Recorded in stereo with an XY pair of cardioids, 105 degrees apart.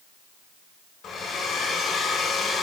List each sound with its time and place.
1.0 s a hair dryer: 55° left, 6.5 m